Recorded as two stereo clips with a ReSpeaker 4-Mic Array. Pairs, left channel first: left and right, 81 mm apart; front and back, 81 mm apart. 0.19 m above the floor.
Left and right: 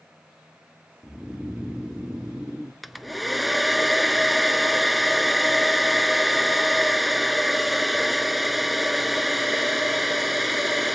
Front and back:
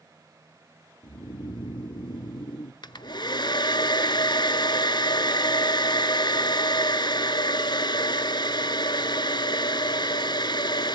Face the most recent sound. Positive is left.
turn(degrees=0)